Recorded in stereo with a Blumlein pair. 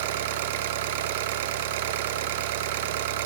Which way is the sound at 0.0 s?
50° right.